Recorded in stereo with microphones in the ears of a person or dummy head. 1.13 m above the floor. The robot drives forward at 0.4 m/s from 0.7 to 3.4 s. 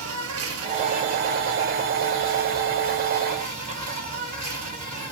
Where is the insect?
70° right (ahead or behind), 1.0 m; by 5.1 s 40° right (ahead or behind), 1.4 m.